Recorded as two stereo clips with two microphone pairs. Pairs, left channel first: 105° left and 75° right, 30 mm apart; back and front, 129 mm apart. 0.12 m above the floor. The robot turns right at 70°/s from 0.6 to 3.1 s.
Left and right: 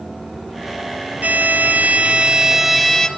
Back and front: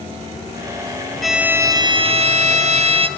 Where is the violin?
95° right, 1.0 m; by 3.1 s 35° left, 1.0 m.